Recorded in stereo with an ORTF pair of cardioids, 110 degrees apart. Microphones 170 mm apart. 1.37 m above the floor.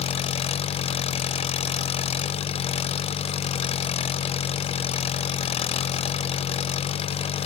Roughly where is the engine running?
Ahead left.